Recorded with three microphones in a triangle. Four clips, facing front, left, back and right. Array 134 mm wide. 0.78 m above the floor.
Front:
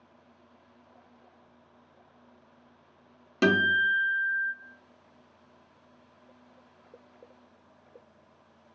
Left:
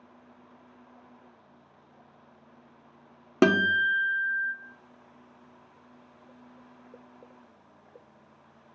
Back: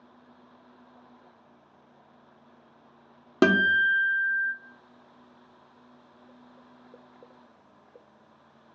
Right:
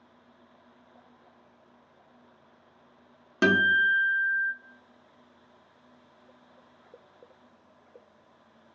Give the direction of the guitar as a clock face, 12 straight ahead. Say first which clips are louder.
Left 1 dB, back 3 dB; 7 o'clock.